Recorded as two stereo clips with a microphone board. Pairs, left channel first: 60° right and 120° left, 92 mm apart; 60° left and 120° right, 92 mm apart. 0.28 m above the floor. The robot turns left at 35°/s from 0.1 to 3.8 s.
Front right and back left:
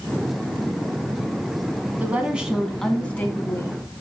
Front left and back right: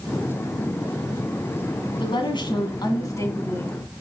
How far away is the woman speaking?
About 2 m.